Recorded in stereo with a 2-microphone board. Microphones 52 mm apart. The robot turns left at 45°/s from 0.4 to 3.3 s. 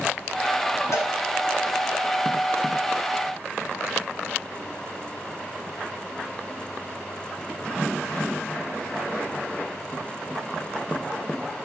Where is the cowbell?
75° left (ahead or behind), 4 m; by 1.1 s 70° left (ahead or behind), 4 m.